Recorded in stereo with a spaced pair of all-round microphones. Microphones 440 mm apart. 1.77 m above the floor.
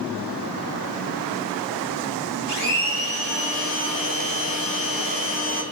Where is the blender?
85° right, 4.5 m.